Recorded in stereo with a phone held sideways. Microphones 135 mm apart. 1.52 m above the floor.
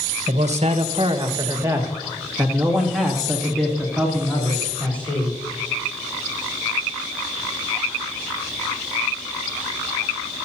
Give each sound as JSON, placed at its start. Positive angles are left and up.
{"t": 0.3, "sound": "a man speaking", "side_deg": -65, "distance_m": 1.4}